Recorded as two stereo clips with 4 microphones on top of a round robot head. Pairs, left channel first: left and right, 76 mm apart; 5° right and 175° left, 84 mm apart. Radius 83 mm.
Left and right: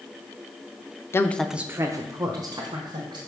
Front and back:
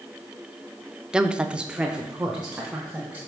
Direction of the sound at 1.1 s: 100° left.